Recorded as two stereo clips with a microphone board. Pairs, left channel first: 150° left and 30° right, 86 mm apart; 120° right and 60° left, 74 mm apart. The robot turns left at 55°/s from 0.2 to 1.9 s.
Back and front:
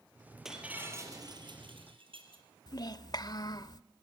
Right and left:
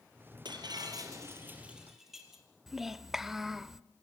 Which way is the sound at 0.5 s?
55° left.